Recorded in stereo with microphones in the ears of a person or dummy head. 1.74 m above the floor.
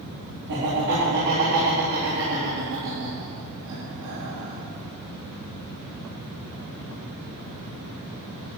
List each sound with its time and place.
0.5 s laughter: 65° right (ahead or behind), 4 m